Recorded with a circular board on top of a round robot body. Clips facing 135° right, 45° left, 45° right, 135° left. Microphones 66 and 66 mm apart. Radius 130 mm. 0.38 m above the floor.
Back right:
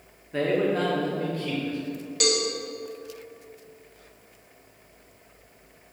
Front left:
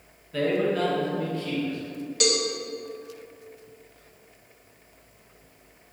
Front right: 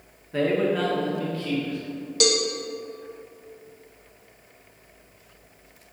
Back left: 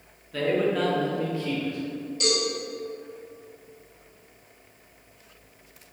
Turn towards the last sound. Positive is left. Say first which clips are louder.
# even, front right 4 dB
turn(degrees=-45)